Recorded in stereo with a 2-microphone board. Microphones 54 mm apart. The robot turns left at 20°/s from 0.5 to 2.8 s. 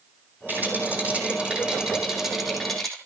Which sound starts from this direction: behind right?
A rattle, at 0.5 s.